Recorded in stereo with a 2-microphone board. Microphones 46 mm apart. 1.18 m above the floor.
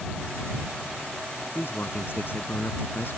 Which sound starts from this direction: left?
A man speaking, at 1.6 s.